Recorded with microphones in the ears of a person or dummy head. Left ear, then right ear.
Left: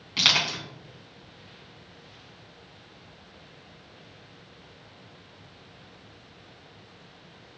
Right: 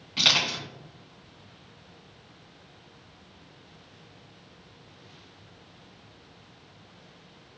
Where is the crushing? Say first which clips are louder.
Even; 25° left (ahead or behind), 1.3 m.